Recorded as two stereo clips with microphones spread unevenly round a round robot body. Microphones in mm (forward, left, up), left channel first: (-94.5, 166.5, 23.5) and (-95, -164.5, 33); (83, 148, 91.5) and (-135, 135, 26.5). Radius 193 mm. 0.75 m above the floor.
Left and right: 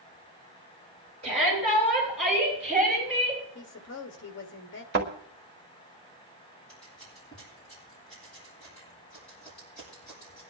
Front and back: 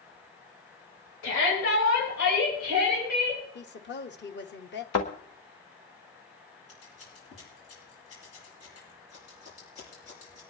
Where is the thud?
25° right, 1.4 m.